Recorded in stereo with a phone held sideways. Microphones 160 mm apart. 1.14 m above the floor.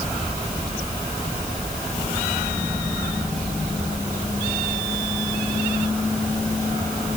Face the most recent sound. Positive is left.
No sound to turn to.